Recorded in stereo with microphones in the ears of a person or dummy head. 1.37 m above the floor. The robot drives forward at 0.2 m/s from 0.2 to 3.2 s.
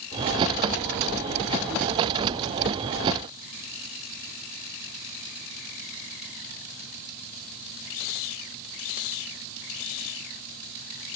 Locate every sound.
Only background noise.